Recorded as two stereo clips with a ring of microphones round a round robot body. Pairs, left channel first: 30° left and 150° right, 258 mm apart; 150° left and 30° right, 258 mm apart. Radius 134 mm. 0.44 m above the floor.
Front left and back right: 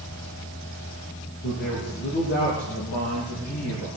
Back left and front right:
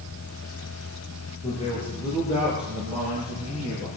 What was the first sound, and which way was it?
A man speaking, 85° left.